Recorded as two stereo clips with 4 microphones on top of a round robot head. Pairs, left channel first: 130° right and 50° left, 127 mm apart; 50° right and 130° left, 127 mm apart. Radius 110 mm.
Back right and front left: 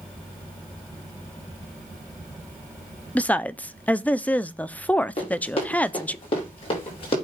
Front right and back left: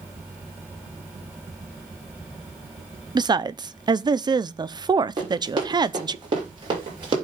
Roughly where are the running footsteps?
Behind.